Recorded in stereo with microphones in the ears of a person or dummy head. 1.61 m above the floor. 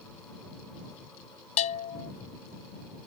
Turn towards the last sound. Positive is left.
turn(degrees=40)  # may be behind; listen again after turning